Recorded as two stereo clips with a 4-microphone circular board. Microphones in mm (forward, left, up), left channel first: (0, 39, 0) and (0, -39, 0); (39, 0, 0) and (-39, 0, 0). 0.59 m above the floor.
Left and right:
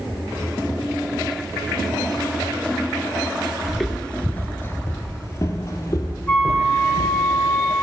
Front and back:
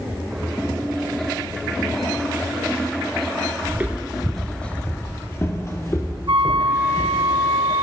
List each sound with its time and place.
3.7 s footsteps: 170° right, 0.5 m; by 7.3 s 45° left, 1.7 m
6.3 s a flute: 165° left, 0.7 m